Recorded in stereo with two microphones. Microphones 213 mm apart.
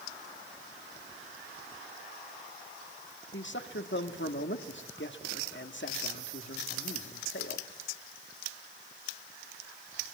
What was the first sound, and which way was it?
A man speaking, 60° left (ahead or behind).